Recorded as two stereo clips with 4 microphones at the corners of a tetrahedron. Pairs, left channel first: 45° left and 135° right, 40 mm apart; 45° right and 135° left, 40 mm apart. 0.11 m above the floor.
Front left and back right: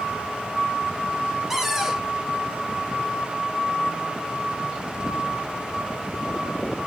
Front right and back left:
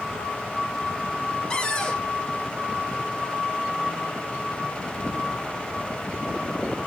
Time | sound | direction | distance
1.5 | a cupboard door | 70° right | 0.9 m